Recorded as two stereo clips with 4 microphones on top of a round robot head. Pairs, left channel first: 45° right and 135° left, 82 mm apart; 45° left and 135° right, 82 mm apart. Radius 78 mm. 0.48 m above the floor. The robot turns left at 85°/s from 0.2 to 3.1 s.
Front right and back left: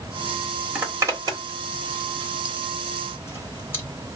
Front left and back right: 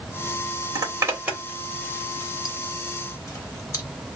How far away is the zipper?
About 1.8 m.